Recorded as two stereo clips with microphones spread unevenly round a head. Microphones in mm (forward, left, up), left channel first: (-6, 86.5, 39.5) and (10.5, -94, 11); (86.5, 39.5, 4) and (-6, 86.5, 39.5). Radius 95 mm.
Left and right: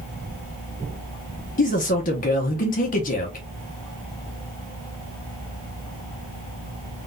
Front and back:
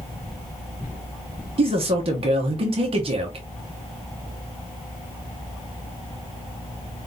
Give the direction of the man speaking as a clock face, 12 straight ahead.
7 o'clock.